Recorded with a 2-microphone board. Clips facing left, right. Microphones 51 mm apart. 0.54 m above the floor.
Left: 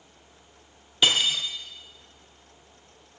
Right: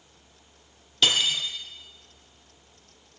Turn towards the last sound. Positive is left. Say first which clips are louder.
# left 1 dB
turn(degrees=15)  # may be behind; listen again after turning